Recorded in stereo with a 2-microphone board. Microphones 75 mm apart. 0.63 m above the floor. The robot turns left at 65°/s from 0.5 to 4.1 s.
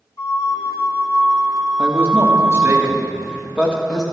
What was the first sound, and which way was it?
A flute, 80° left.